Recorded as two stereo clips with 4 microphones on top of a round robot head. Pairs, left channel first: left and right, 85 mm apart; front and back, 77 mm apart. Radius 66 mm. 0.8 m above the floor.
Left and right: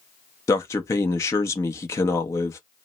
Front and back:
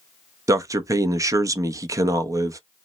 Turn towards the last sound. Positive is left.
turn(degrees=140)